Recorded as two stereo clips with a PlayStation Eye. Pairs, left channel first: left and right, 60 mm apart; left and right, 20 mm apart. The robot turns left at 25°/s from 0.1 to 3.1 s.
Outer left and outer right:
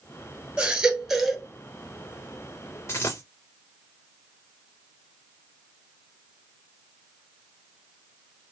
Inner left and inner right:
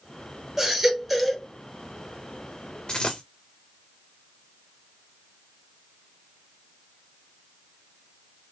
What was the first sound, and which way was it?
A baby crying, 15° right (ahead or behind).